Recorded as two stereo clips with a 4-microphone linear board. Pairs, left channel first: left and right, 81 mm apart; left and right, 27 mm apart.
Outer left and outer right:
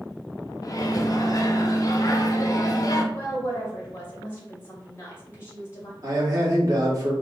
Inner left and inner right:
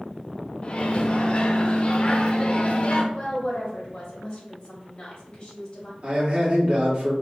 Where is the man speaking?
45° right (ahead or behind), 1.3 m.